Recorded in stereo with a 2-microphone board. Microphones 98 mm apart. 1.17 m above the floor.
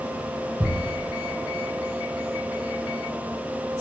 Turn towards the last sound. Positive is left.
turn(degrees=-30)  # may be behind; listen again after turning